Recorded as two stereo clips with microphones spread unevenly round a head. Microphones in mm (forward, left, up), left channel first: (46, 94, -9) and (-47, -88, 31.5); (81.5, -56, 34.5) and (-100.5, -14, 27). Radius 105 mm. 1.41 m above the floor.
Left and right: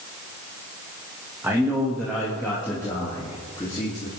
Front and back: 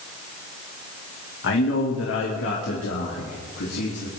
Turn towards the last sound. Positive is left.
turn(degrees=-10)